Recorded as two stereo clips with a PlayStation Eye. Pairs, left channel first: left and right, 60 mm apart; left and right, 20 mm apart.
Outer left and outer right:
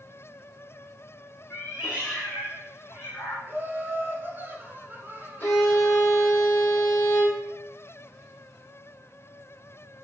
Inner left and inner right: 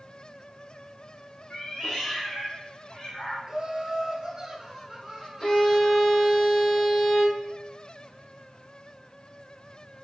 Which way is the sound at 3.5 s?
35° right (ahead or behind).